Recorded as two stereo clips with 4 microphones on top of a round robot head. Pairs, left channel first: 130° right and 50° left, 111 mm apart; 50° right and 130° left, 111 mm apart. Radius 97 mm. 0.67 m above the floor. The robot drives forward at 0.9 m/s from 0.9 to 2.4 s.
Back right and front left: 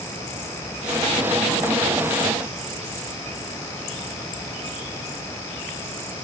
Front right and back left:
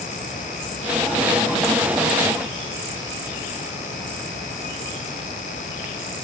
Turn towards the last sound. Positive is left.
No sound to turn to.